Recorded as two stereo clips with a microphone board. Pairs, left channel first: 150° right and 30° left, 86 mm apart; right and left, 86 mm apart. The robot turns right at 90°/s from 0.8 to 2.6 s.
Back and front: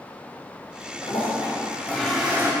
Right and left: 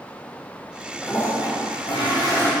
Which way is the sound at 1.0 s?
160° right.